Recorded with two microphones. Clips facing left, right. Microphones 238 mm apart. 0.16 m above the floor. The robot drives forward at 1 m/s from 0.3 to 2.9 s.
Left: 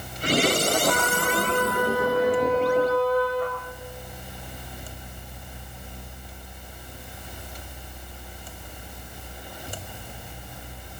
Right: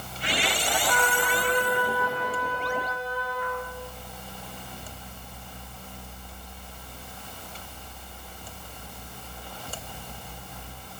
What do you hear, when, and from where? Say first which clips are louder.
0.9 s a trumpet: left 3 dB; 80° left, 5 m; by 3.6 s 65° left (ahead or behind), 5.5 m